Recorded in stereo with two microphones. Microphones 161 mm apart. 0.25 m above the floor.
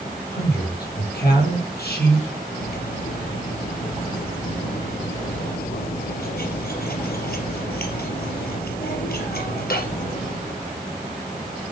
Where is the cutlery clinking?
70° left (ahead or behind), 3.5 m.